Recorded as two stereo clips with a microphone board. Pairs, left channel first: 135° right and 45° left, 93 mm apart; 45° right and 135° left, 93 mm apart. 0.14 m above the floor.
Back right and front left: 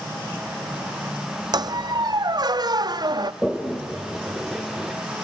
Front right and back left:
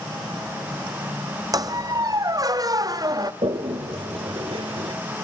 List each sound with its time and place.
1.5 s a squeak: 85° left, 0.5 m
3.4 s a toilet flushing: 135° left, 1.0 m